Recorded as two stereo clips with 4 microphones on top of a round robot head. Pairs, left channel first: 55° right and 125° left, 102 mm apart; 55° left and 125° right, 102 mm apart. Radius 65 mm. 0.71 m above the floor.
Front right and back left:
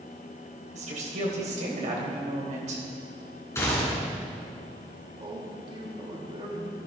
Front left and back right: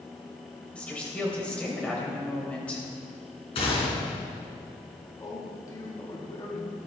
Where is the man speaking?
105° left, 1.8 m.